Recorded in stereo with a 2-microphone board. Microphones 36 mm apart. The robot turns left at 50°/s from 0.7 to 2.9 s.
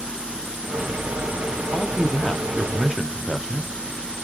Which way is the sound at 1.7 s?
45° left.